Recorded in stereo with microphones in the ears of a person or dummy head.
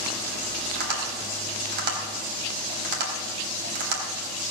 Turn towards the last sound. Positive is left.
turn(degrees=-60)  # may be behind; listen again after turning